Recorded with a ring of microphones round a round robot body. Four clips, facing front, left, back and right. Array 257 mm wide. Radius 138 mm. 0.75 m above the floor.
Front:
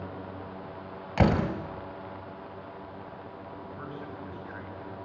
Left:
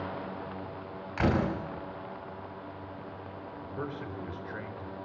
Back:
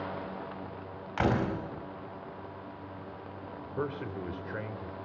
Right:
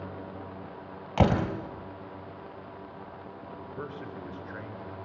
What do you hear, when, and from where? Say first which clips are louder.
1.2 s a door slam: right 3 dB, front 3 dB; 55° right, 4 m
3.6 s a man speaking: left 2 dB, back 8 dB; 170° left, 3.5 m